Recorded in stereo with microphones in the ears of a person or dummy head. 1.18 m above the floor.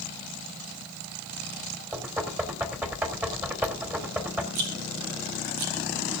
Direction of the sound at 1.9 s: 15° right (ahead or behind).